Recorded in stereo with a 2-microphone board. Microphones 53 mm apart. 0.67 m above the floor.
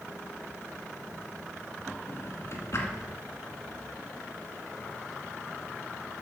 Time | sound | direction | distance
2.1 | a drawer | 55° left (ahead or behind) | 1.9 m